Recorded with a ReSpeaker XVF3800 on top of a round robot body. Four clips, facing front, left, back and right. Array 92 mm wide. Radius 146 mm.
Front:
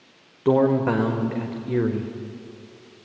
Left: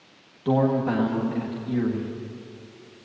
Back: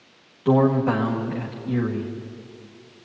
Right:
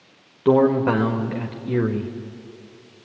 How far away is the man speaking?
About 1.8 m.